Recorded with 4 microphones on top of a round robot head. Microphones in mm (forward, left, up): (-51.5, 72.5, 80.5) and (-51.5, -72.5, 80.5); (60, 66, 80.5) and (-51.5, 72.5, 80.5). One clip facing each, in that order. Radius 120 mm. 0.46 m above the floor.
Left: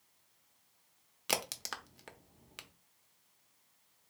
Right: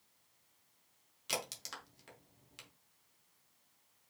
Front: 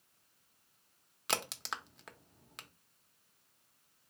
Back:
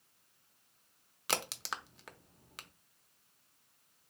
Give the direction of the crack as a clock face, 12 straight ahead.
9 o'clock.